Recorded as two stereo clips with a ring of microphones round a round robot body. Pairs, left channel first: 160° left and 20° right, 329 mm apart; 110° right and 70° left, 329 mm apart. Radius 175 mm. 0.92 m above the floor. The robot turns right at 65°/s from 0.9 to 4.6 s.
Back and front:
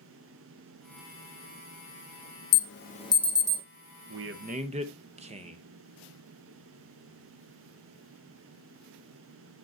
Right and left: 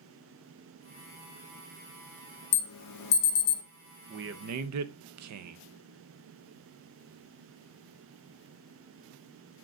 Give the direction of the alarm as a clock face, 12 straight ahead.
5 o'clock.